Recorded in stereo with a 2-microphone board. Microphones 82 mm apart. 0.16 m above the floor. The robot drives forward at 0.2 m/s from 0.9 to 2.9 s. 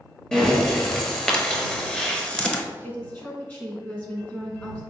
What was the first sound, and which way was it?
Breathing, 10° left (ahead or behind).